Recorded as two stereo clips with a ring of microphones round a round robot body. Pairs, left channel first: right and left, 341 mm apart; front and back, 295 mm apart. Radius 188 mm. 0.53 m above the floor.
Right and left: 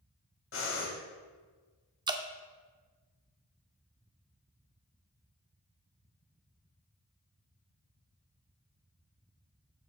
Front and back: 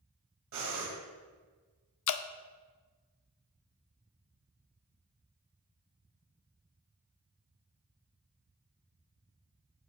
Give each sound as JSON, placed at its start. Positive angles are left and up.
{"t": 0.5, "sound": "breathing", "azimuth_deg": -145, "distance_m": 2.0}
{"t": 2.1, "sound": "dripping", "azimuth_deg": 15, "distance_m": 0.6}